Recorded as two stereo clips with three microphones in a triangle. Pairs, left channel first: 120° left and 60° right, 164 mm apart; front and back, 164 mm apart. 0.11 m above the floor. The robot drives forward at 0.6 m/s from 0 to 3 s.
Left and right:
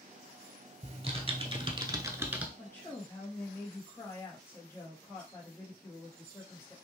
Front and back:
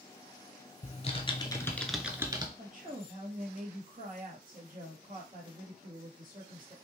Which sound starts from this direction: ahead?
Typing on a keyboard, at 0.8 s.